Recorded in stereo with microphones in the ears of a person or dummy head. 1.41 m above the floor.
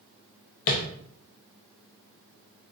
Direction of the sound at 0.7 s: 40° left (ahead or behind).